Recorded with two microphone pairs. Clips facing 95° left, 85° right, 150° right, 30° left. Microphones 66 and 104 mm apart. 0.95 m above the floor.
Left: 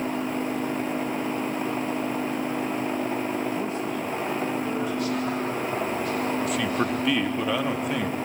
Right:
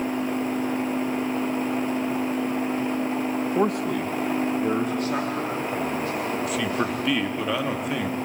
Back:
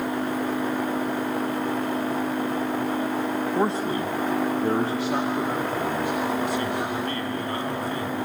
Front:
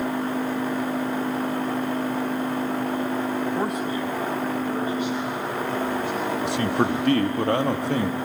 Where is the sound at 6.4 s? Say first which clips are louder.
Even, front 3 dB; 5° left, 1.3 m.